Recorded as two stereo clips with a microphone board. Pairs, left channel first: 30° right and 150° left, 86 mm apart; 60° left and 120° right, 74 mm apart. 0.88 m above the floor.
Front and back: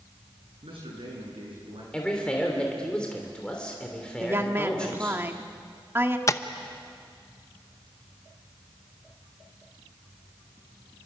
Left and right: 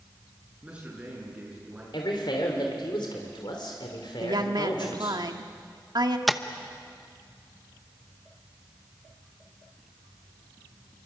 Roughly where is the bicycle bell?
I don't hear a bicycle bell.